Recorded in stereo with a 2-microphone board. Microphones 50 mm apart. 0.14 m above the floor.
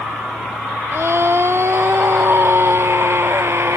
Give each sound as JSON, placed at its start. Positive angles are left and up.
{"t": 0.9, "sound": "a scream", "side_deg": -60}